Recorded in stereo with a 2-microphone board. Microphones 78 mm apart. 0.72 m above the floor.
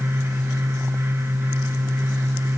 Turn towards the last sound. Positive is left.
No sound to turn to.